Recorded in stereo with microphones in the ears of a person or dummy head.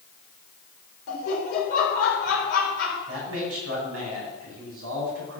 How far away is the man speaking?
About 4 m.